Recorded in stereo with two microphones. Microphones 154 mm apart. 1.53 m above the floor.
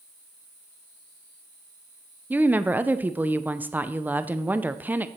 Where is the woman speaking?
10° right (ahead or behind), 0.5 m.